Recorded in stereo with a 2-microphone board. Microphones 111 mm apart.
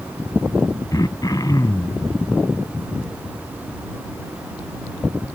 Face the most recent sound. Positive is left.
turn(degrees=35)  # may be behind; listen again after turning